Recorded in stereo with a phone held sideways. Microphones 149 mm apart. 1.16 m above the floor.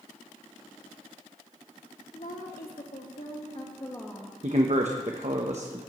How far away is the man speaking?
About 1.0 m.